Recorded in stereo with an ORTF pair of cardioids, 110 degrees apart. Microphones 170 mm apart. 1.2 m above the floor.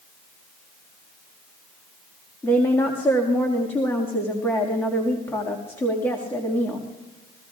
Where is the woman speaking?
15° left, 1.9 m.